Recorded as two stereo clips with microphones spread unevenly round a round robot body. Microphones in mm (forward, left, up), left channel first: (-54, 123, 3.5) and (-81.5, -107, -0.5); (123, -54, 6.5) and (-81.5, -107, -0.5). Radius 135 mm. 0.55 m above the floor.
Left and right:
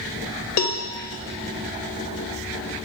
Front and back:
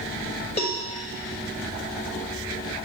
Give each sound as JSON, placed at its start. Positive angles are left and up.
{"t": 0.6, "sound": "a cowbell", "azimuth_deg": 85, "distance_m": 1.0}